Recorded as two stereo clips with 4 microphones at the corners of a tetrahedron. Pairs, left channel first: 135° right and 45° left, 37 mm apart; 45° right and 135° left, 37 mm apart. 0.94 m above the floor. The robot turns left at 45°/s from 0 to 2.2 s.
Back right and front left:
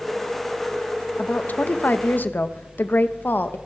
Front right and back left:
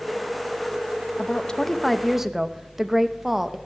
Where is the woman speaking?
95° right, 0.8 m; by 3.6 s 145° right, 0.8 m.